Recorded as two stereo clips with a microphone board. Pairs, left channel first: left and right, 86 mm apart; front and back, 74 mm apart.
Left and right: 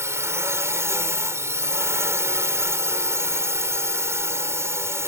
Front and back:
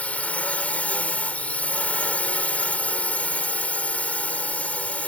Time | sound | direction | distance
0.0 | a drone | 60° right | ?